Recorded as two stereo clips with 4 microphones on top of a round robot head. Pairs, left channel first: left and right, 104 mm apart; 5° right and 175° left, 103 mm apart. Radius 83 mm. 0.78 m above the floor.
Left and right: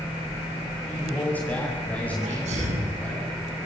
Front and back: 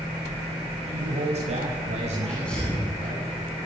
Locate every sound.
0.9 s a man speaking: 165° left, 6.5 m
2.2 s a sneeze: 90° right, 8.5 m